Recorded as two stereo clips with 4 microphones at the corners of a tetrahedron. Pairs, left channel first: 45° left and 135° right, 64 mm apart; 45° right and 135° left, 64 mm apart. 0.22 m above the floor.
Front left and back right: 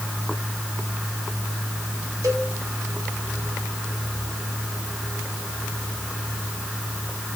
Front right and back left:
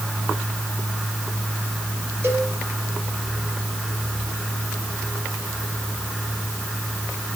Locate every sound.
2.2 s a cowbell: 170° right, 3 m